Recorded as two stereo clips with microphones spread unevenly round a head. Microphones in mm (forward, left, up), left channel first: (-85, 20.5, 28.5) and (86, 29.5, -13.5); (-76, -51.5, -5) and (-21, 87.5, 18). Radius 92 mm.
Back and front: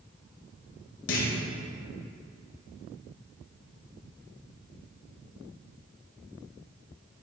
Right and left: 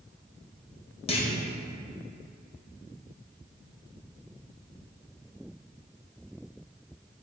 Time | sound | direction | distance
1.1 | a clunk | 165° right | 1.2 m